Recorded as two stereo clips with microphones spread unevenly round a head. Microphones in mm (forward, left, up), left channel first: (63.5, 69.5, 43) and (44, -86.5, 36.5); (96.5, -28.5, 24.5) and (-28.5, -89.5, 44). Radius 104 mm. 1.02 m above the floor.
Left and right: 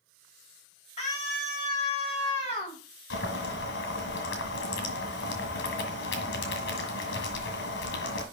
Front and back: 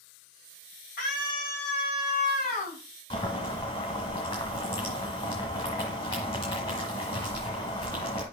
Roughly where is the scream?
Ahead left.